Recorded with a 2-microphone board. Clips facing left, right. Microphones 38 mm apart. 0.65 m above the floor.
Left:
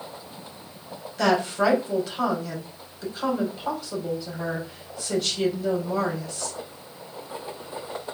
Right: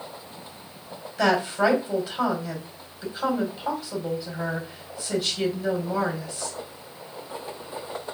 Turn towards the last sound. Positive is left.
turn(degrees=-5)  # may be behind; listen again after turning